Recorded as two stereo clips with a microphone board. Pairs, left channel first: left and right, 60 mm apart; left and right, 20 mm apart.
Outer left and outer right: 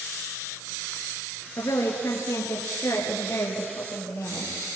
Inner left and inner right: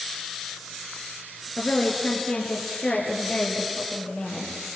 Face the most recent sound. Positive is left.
turn(degrees=50)  # may be behind; listen again after turning